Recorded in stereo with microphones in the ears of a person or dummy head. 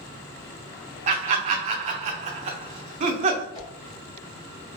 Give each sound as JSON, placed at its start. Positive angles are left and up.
{"t": 1.1, "sound": "laughter", "side_deg": -35, "distance_m": 0.6}
{"t": 3.5, "sound": "a whoosh", "side_deg": 25, "distance_m": 1.1}